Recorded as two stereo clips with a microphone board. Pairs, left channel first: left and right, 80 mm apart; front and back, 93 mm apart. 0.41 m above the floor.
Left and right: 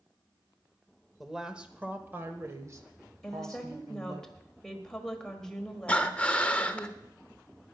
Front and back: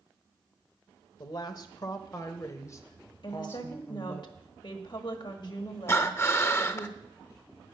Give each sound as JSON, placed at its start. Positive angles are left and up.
{"t": 1.2, "sound": "a woman speaking", "azimuth_deg": 0, "distance_m": 1.2}
{"t": 3.2, "sound": "a woman speaking", "azimuth_deg": 10, "distance_m": 1.6}
{"t": 5.9, "sound": "breathing", "azimuth_deg": 35, "distance_m": 0.7}